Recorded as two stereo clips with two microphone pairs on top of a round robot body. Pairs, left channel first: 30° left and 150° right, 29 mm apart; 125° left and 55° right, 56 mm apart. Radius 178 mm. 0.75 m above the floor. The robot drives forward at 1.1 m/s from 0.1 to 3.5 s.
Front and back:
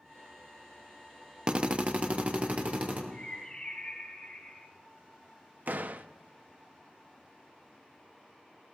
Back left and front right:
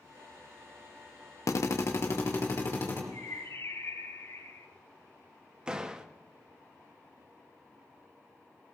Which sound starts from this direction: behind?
A drill, at 1.5 s.